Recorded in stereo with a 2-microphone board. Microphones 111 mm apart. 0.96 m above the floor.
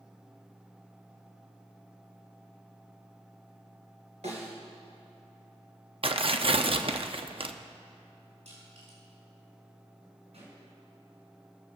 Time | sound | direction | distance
4.2 | a snare drum | 75° right (ahead or behind) | 3 m
6.0 | tearing paper | 55° right (ahead or behind) | 0.7 m
8.4 | crushing | 85° right | 6 m
10.3 | a pop | 75° right (ahead or behind) | 5.5 m